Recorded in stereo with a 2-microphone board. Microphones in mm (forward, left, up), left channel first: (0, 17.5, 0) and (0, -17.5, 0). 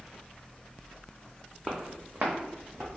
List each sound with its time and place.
1.6 s footsteps: 30° right (ahead or behind), 0.8 m; by 2.9 s 70° right (ahead or behind), 1.4 m